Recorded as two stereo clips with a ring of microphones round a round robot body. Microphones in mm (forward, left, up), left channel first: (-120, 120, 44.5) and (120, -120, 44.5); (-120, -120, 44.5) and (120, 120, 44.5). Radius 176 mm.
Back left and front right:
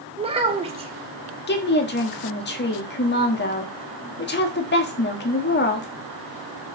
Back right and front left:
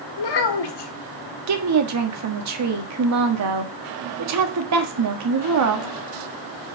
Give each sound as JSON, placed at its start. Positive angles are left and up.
{"t": 0.2, "sound": "a child speaking", "azimuth_deg": -120, "distance_m": 1.6}
{"t": 1.5, "sound": "a woman speaking", "azimuth_deg": 80, "distance_m": 1.5}